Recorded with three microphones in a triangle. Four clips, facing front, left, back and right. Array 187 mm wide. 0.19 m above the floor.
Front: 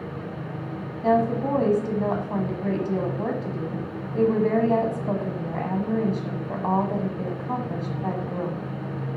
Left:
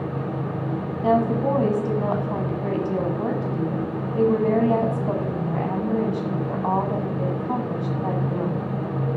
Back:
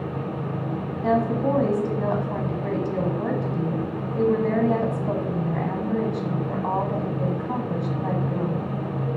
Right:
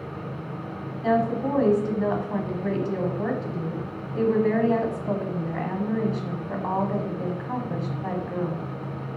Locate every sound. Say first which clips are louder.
1.0 s a woman speaking: left 3 dB, front 1 dB; 75° left, 1.3 m